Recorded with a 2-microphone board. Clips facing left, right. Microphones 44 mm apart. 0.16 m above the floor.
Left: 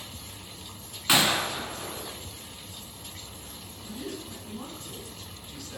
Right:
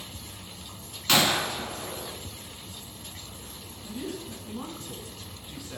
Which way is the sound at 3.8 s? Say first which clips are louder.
Right 2 dB; 15° right (ahead or behind).